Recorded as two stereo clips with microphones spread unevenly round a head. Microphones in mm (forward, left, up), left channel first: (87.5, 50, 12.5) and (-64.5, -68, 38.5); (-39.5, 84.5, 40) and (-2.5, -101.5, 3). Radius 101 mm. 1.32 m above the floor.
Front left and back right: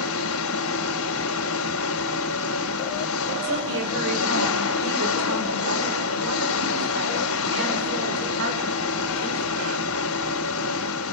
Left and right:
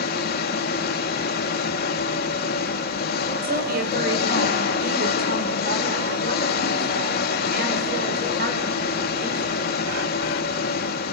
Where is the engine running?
60° left, 2.5 m.